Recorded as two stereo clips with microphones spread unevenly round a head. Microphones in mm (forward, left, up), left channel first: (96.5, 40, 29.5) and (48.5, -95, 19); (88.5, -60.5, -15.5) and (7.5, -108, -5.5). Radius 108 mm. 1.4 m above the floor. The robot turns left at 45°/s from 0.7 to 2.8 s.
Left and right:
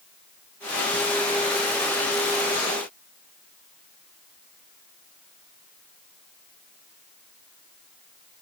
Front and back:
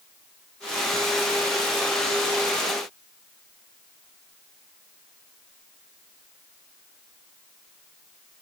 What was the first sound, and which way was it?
Only background noise.